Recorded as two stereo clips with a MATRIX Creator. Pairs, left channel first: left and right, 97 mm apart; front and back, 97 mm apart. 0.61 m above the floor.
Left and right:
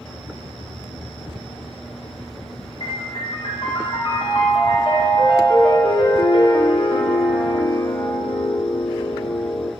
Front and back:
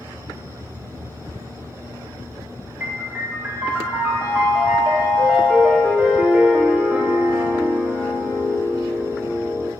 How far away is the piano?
About 0.7 m.